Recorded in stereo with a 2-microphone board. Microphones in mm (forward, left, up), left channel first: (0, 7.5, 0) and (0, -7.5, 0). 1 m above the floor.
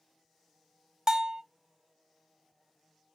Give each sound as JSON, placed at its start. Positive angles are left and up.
{"t": 1.1, "sound": "a bell", "side_deg": -40, "distance_m": 0.6}